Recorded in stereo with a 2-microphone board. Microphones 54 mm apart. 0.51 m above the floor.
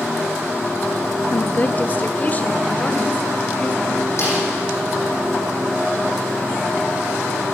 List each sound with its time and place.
1.3 s a woman speaking: 35° left (ahead or behind), 0.8 m; by 4.1 s 25° left (ahead or behind), 3 m
4.2 s a snare drum: 55° left (ahead or behind), 9.5 m